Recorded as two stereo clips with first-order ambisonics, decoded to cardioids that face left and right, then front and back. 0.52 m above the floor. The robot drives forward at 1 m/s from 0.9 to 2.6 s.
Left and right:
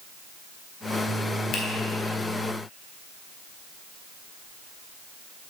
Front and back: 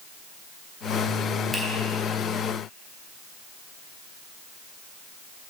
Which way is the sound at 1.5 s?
100° left.